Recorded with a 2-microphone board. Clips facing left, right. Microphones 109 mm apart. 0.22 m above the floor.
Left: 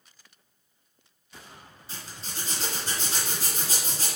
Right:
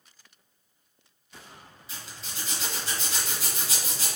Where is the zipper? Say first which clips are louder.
Left 2 dB; 40° left (ahead or behind), 2.5 m.